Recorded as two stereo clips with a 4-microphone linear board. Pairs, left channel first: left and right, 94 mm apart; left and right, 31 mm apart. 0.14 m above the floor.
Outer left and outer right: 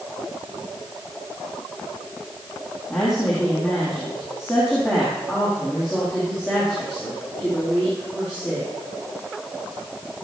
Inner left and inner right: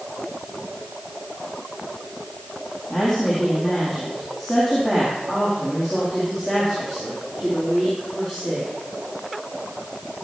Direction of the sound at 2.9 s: Centre (ahead or behind).